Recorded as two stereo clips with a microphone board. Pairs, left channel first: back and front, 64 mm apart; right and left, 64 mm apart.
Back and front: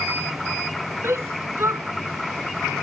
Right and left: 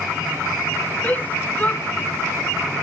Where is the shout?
35° right.